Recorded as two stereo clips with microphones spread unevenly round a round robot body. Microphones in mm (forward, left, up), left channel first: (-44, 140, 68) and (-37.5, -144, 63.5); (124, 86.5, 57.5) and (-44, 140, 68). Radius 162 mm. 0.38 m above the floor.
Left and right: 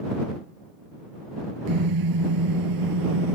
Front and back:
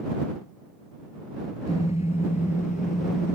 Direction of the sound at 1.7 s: 90° right.